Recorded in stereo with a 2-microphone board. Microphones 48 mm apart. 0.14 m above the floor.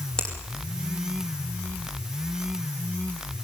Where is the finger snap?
15° left (ahead or behind), 5 m.